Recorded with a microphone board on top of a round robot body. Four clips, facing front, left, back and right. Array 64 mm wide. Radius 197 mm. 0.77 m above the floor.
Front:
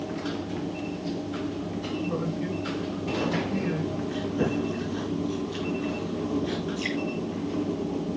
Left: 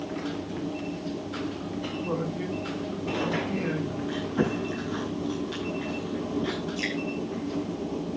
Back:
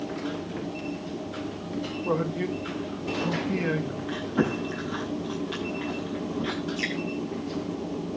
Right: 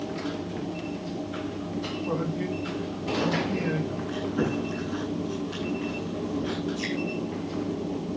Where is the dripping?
155° left, 8 m.